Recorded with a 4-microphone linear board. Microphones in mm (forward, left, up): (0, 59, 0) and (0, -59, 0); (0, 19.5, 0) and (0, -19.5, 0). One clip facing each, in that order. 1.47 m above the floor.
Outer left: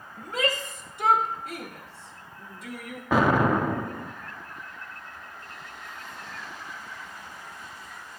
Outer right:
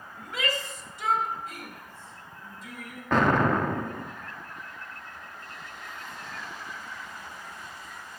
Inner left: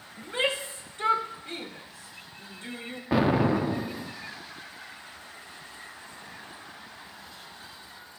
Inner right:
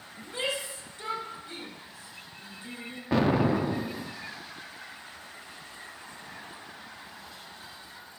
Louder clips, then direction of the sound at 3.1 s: Outer left 1 dB, inner left 1 dB; 10° left (ahead or behind).